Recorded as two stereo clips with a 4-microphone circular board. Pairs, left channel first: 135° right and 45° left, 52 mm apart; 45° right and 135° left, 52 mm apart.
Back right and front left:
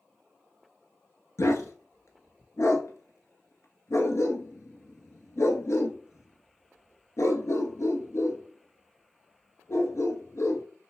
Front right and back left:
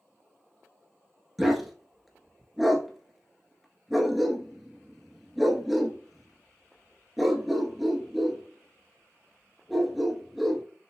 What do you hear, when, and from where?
1.4 s a dog barking: 135° right, 1.0 m